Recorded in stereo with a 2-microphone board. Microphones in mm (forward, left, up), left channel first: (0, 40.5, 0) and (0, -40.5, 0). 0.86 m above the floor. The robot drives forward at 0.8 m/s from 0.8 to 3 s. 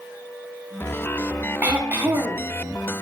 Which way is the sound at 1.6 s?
20° right (ahead or behind).